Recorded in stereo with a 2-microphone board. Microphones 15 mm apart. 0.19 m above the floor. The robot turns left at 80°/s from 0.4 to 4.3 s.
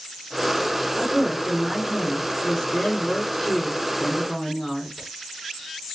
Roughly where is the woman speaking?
Right.